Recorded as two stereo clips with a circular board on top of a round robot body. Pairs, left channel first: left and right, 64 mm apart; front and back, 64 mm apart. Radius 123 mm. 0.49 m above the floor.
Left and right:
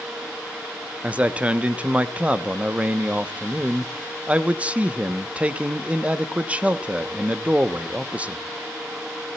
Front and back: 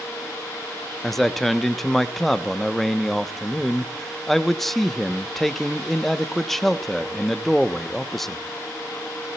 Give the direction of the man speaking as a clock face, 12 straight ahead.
3 o'clock.